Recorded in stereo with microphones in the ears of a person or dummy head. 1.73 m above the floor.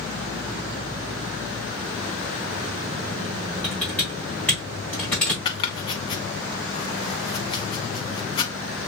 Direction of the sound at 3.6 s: 5° left (ahead or behind).